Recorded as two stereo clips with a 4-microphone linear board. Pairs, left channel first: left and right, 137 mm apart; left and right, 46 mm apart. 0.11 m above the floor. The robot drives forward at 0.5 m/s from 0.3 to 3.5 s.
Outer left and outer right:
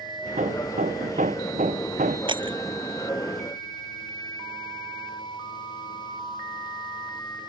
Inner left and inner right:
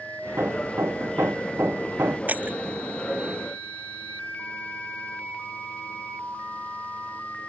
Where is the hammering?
65° right (ahead or behind); by 2.2 s 70° right (ahead or behind).